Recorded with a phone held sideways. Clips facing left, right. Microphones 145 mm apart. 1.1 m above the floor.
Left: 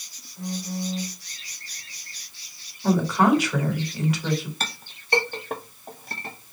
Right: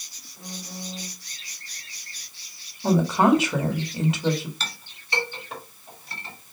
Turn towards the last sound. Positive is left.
turn(degrees=50)  # may be behind; listen again after turning